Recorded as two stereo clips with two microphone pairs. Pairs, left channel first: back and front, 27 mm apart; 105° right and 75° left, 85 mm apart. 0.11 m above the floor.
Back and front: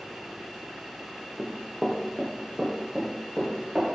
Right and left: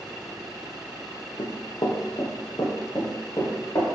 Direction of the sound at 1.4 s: 90° right.